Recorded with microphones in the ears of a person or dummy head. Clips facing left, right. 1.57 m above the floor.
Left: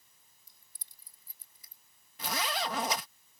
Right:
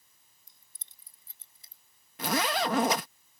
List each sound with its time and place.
0.5 s keys jangling: 20° right (ahead or behind); by 1.8 s 25° right (ahead or behind)
2.2 s a zipper: 50° right (ahead or behind)